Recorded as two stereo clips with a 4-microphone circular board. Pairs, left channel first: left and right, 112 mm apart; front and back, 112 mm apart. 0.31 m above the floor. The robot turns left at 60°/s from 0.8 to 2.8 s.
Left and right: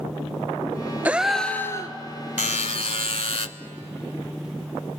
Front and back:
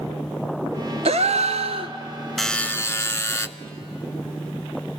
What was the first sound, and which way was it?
A gasp, 165° right.